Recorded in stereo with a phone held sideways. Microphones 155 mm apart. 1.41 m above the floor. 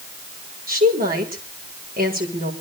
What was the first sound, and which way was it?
A woman speaking, 70° right (ahead or behind).